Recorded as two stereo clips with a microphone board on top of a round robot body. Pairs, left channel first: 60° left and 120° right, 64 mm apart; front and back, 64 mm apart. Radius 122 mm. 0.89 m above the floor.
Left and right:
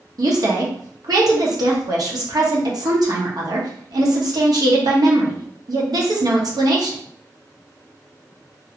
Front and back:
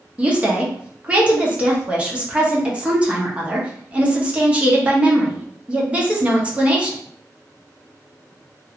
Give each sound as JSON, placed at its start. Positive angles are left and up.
{"t": 0.2, "sound": "a woman speaking", "azimuth_deg": -105, "distance_m": 1.1}